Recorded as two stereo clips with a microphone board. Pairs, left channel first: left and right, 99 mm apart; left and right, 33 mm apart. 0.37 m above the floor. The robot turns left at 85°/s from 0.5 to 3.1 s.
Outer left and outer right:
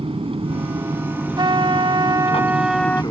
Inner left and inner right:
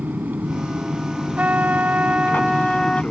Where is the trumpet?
60° right; by 3.0 s 160° left.